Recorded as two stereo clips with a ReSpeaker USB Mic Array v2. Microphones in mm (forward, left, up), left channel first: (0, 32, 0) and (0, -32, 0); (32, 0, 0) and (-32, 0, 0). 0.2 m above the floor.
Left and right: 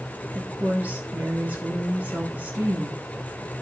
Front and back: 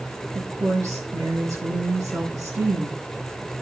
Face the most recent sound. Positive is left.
turn(degrees=-155)